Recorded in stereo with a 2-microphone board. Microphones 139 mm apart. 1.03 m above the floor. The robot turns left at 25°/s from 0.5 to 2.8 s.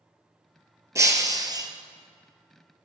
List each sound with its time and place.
0.9 s breaking glass: 20° right (ahead or behind), 1.2 m; by 1.7 s 30° right (ahead or behind), 1.2 m